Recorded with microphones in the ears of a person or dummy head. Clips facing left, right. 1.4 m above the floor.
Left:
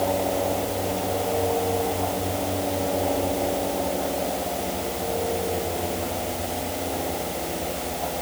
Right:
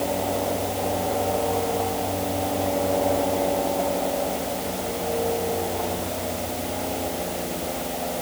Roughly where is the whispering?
No whispering in this recording.